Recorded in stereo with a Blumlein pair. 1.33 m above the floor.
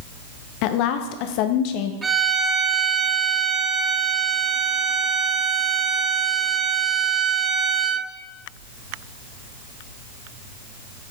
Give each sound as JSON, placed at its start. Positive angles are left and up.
{"t": 0.6, "sound": "a woman speaking", "azimuth_deg": 45, "distance_m": 0.7}
{"t": 2.0, "sound": "a violin", "azimuth_deg": -15, "distance_m": 0.6}